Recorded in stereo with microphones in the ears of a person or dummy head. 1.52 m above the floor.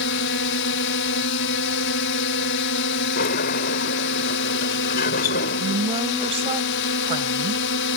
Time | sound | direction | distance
0.0 | a drone | 70° left (ahead or behind) | ?
3.1 | a sliding door | 45° left (ahead or behind) | ?
5.6 | a woman speaking | 40° right (ahead or behind) | ?